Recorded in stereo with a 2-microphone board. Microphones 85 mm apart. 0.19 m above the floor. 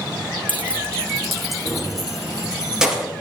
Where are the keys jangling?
20° left (ahead or behind), 0.9 m; by 3.1 s 10° right (ahead or behind), 3 m.